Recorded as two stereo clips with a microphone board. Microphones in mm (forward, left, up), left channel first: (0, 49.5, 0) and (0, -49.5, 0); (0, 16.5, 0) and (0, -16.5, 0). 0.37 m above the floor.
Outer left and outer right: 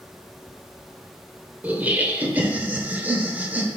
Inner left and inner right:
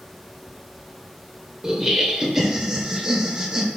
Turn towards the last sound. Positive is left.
turn(degrees=-15)  # may be behind; listen again after turning